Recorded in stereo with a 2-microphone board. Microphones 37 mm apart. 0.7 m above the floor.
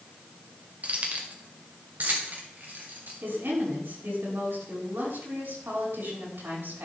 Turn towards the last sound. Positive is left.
turn(degrees=-75)  # may be behind; listen again after turning